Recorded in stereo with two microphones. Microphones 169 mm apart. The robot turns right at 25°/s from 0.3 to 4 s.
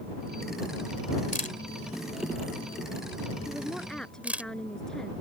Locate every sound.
1.3 s a camera shutter: 50° left (ahead or behind); by 4.5 s 10° right (ahead or behind)
3.5 s a woman speaking: 10° right (ahead or behind); by 5.1 s 5° left (ahead or behind)